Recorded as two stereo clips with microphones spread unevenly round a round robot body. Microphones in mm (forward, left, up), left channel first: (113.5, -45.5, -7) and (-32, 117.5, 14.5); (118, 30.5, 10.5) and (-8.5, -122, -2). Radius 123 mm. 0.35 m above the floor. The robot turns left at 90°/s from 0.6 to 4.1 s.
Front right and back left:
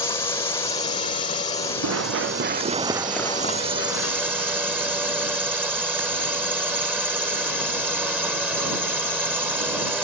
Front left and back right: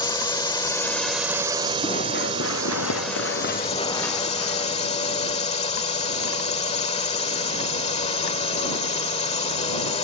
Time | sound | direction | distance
0.0 | a drone | straight ahead | ?
1.8 | running footsteps | 125° left | ?